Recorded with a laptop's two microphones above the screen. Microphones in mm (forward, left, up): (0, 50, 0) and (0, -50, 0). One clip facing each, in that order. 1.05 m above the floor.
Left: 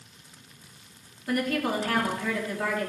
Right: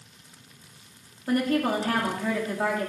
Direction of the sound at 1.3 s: 35° right (ahead or behind).